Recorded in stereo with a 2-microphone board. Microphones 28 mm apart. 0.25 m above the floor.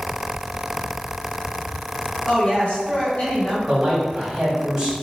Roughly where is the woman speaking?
Left.